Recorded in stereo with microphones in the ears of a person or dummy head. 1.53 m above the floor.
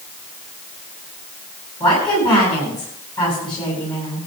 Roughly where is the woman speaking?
Left.